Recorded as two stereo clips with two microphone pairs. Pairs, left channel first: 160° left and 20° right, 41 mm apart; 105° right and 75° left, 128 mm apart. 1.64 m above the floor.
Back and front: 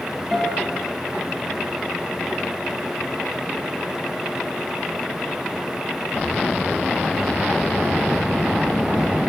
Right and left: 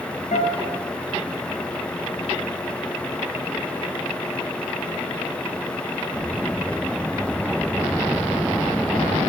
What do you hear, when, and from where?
0.3 s a guitar: 105° right, 3.5 m